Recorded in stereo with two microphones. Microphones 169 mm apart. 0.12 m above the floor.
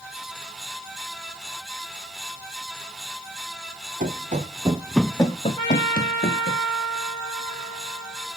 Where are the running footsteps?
55° right (ahead or behind), 1.6 m; by 6.6 s 70° left (ahead or behind), 2 m.